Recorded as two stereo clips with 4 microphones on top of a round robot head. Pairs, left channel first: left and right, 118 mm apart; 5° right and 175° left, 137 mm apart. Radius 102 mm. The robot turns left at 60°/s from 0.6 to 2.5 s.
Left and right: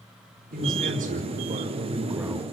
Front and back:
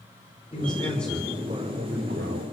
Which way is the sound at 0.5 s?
65° right.